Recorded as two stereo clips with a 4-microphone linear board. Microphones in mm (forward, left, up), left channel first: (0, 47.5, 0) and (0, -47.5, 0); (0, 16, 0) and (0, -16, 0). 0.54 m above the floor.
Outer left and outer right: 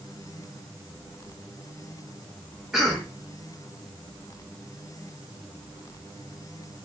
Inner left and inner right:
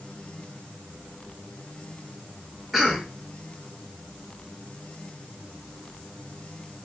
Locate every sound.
2.7 s a cough: 5° right (ahead or behind), 0.8 m